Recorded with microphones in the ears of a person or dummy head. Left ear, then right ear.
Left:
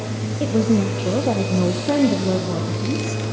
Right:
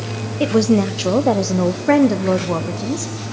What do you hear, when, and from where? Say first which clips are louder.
0.4 s a woman speaking: right 4 dB; 50° right (ahead or behind), 1.3 m; by 3.1 s 40° right (ahead or behind), 2.5 m